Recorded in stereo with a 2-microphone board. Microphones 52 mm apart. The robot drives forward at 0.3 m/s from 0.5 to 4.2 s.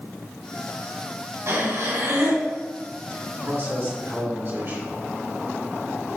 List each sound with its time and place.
1.5 s breathing: 65° right (ahead or behind), 1.5 m; by 2.5 s 60° right (ahead or behind), 1.6 m
3.4 s a man speaking: 55° right (ahead or behind), 3 m